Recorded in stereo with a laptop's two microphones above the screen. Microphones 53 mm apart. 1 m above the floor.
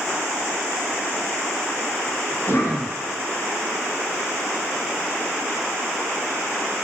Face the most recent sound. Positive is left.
turn(degrees=50)  # may be behind; listen again after turning